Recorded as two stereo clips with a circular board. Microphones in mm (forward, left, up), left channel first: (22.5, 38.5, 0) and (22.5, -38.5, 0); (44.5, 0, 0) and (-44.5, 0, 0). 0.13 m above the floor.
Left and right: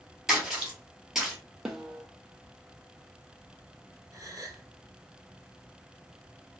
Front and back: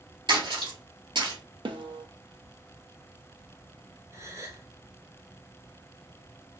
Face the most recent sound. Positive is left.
turn(degrees=-130)